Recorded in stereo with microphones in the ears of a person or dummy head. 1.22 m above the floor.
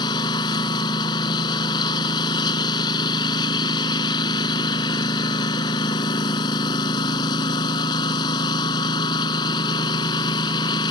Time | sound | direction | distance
0.0 | a lawn mower | 25° left (ahead or behind) | ?